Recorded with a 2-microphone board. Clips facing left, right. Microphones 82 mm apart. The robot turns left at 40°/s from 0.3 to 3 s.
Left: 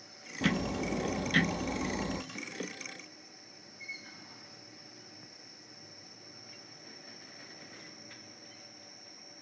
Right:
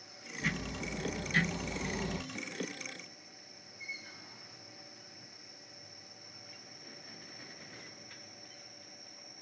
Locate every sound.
0.4 s ticking: 95° left, 0.9 m; by 2.2 s 20° left, 0.9 m